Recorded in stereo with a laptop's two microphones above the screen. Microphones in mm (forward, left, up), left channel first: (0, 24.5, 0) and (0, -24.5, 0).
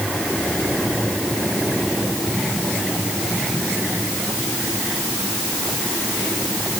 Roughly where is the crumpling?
No crumpling in this recording.